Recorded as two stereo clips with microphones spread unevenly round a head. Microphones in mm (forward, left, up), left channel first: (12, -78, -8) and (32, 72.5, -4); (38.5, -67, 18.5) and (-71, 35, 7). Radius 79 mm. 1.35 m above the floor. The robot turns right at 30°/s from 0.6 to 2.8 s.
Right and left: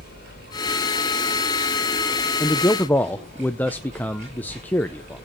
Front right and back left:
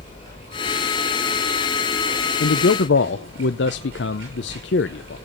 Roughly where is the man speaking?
Ahead right.